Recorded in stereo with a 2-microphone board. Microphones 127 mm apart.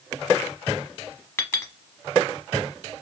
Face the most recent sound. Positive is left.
turn(degrees=20)  # may be behind; listen again after turning